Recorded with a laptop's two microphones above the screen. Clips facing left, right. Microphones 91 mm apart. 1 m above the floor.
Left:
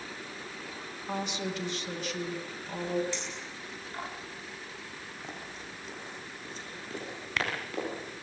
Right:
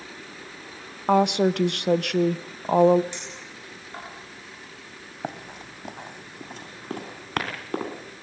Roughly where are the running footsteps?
Right.